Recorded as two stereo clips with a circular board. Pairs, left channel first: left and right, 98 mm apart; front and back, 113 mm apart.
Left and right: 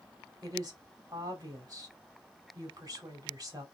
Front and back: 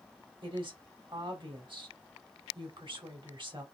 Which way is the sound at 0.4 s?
140° right.